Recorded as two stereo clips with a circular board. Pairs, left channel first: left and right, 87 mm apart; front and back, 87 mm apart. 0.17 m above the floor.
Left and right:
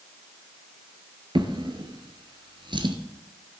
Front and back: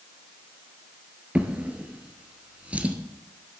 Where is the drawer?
105° right, 1.3 m.